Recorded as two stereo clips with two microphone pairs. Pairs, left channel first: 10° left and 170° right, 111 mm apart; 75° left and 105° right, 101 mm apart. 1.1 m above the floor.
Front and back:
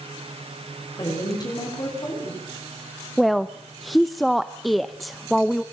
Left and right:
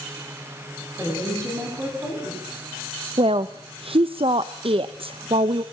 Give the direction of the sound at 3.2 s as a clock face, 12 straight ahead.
3 o'clock.